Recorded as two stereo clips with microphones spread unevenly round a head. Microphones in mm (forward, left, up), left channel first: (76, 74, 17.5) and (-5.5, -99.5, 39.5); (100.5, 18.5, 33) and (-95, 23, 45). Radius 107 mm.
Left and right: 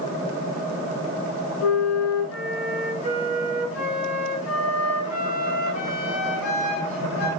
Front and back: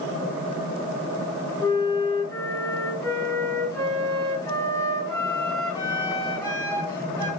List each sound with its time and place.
1.6 s a flute: 70° left, 8.5 m